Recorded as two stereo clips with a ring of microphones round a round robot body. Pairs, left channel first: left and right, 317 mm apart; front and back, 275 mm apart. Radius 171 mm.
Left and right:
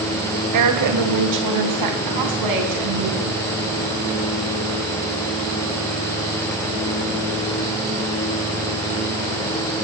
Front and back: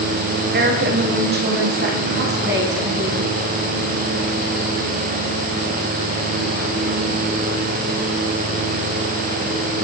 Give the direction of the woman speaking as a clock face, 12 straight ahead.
4 o'clock.